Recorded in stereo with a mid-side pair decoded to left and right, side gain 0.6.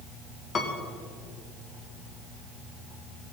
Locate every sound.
0.6 s a piano: 35° left, 2 m